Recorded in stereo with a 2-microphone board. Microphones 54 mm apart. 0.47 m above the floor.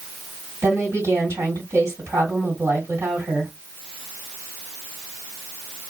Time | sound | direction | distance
0.6 | a woman speaking | 55° right (ahead or behind) | 2 m